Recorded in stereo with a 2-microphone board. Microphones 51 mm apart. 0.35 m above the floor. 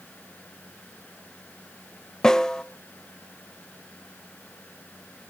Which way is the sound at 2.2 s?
15° left (ahead or behind).